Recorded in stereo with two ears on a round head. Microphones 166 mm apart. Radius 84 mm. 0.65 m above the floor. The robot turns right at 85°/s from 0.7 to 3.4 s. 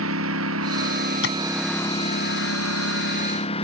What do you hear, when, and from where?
0.0 s a lawn mower: 80° right; by 3.6 s 145° left
1.2 s tapping: 70° left (ahead or behind); by 1.4 s 55° left (ahead or behind)